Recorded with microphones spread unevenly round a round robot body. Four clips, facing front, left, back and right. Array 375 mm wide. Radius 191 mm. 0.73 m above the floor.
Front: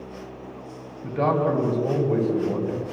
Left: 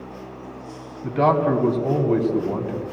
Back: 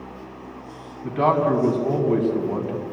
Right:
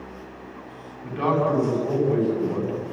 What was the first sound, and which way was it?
A man speaking, 90° left.